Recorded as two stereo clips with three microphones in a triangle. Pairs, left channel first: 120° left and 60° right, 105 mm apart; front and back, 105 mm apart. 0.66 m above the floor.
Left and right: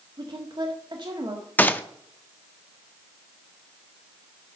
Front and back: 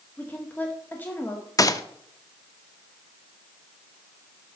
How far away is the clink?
No clink in this recording.